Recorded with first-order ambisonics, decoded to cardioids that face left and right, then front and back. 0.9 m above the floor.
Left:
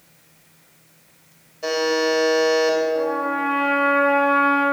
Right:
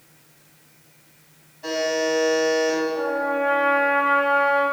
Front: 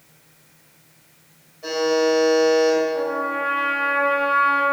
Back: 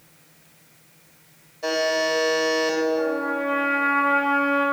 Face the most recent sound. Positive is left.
turn(degrees=30)